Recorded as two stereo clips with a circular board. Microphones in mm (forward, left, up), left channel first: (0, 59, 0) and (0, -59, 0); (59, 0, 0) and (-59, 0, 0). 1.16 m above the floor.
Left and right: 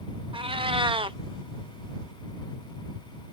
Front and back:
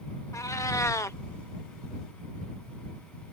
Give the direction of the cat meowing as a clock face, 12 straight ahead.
2 o'clock.